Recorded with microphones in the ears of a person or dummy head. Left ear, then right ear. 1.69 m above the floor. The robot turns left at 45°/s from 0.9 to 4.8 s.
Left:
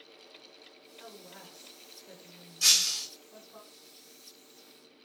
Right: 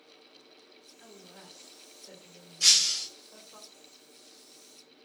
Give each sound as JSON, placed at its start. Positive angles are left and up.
{"t": 1.0, "sound": "a woman speaking", "azimuth_deg": 55, "distance_m": 1.8}
{"t": 2.6, "sound": "breaking glass", "side_deg": -15, "distance_m": 1.5}